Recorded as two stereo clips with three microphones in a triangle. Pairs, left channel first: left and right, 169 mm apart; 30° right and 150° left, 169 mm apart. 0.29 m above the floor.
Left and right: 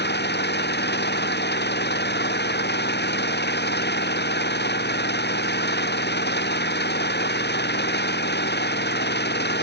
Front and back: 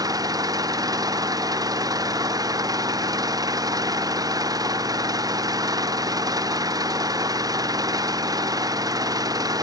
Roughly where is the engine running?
Left.